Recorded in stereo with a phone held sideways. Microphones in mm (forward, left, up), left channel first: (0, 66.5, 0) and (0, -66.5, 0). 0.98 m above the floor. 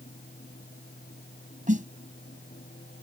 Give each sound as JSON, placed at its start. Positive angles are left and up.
{"t": 0.0, "sound": "a fan", "side_deg": 75}
{"t": 1.7, "sound": "a snare drum", "side_deg": -80}